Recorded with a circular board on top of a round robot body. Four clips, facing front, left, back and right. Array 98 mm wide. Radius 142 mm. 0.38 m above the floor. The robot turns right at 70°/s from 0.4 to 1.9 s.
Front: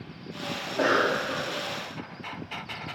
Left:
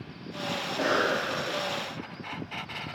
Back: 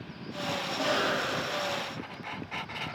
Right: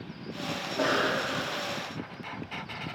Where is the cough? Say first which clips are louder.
Left 1 dB, front 6 dB; 15° right, 1.3 m; by 1.6 s 55° left, 1.3 m.